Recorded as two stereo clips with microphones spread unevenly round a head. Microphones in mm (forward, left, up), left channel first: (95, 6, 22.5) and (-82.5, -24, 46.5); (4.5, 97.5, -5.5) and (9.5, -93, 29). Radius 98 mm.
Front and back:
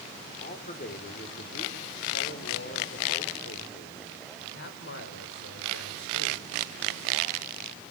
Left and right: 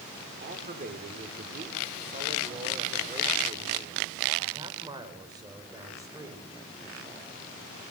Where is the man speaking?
40° right, 5 m; by 6.5 s 15° right, 7.5 m.